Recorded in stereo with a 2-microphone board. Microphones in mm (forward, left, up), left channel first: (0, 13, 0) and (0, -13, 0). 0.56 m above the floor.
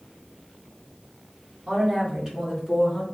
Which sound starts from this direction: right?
A woman speaking, at 1.7 s.